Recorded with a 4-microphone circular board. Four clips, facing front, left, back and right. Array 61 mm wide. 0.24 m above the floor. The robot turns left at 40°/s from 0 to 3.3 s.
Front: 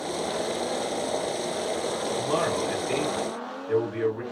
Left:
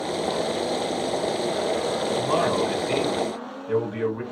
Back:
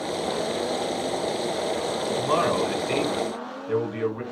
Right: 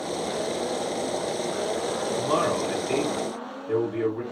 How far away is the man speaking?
About 1.8 m.